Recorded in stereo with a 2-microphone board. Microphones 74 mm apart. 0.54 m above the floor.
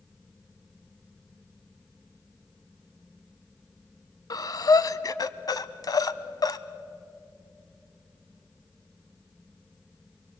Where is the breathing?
55° left (ahead or behind), 0.6 m.